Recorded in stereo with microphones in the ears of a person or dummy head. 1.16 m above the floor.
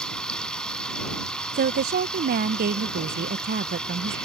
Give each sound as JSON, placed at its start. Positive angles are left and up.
{"t": 0.0, "sound": "running water", "side_deg": 5}
{"t": 1.5, "sound": "a woman speaking", "side_deg": -50}